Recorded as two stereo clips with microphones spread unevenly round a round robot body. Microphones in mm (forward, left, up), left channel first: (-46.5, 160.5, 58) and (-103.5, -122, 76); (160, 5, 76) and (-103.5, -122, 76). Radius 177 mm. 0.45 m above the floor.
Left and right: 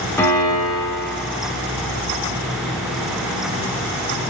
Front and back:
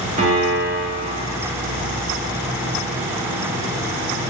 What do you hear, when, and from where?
0.2 s a piano: 155° left, 1.6 m